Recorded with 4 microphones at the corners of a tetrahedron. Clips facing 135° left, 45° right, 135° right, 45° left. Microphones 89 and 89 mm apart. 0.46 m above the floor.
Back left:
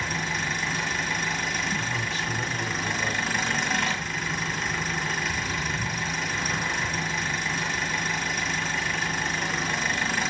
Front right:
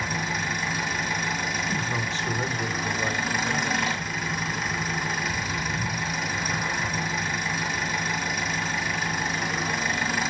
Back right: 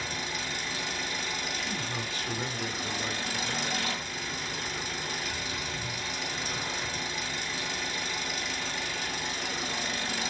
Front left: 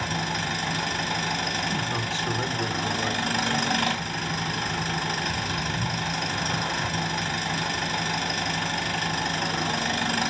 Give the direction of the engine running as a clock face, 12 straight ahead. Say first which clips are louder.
Front right 1 dB, front left 7 dB; 11 o'clock.